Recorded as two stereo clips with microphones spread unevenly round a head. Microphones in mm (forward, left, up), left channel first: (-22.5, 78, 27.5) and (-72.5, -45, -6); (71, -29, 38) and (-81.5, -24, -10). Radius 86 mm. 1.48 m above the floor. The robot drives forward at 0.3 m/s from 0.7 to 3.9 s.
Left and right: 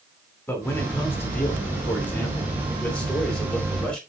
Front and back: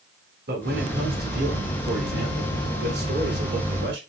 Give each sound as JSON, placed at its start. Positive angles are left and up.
{"t": 0.5, "sound": "a man speaking", "azimuth_deg": 140, "distance_m": 2.5}